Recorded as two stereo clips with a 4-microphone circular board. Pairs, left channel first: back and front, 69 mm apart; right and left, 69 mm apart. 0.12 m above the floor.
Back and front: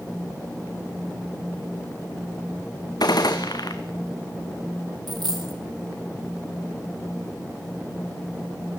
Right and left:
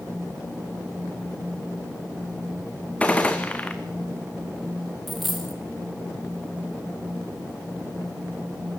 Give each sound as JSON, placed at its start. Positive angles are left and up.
{"t": 3.0, "sound": "a gunshot", "azimuth_deg": -160, "distance_m": 2.5}
{"t": 5.1, "sound": "a dropped coin", "azimuth_deg": 0, "distance_m": 3.0}